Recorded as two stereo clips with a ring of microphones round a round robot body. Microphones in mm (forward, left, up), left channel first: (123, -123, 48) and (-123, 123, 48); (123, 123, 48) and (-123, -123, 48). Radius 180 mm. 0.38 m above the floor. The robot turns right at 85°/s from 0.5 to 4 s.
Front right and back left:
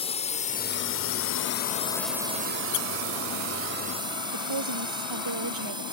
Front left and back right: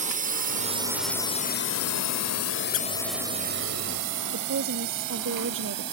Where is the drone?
95° right; by 5.9 s 150° right.